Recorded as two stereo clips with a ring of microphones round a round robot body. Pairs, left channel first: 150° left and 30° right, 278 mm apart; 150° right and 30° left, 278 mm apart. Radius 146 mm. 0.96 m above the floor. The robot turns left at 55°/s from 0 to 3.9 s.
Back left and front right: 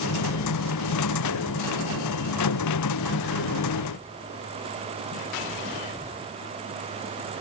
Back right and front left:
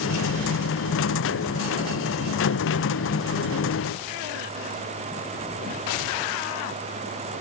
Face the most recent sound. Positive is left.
No sound to turn to.